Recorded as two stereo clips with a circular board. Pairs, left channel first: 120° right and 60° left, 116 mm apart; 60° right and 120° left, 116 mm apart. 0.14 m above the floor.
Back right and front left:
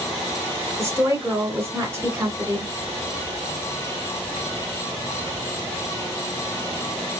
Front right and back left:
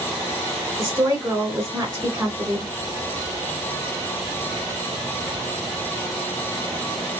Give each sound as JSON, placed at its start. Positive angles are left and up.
{"t": 0.8, "sound": "a woman speaking", "azimuth_deg": 90, "distance_m": 1.6}